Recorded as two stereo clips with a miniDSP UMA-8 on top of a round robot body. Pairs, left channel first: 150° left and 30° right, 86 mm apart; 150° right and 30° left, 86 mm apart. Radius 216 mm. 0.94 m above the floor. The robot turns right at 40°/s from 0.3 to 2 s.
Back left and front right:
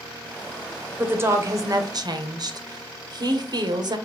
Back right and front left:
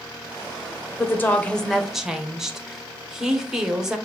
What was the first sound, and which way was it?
A woman speaking, 95° right.